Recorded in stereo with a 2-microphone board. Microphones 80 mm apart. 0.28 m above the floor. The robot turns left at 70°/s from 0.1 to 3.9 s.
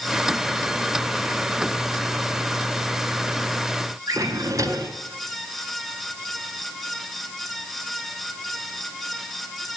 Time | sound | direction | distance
4.1 | a drawer | 40° right (ahead or behind) | 1.5 m